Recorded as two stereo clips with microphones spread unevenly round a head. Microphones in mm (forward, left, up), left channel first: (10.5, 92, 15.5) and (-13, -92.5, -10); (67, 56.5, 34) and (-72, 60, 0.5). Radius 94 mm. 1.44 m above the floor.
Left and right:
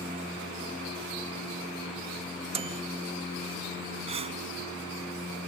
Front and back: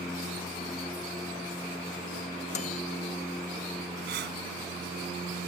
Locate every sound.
2.5 s a microwave: 35° right
4.1 s breathing: 160° right